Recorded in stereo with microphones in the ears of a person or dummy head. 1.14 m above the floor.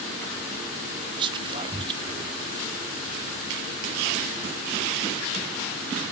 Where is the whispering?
30° right (ahead or behind), 0.6 m.